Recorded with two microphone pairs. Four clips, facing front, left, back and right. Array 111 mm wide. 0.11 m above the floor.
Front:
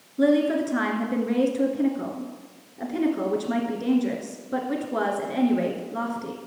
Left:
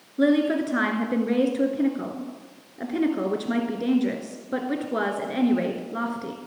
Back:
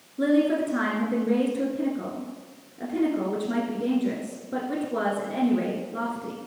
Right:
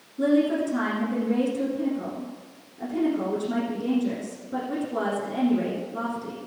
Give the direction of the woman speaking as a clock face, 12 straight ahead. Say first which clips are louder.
Left 1 dB, front 1 dB; 9 o'clock.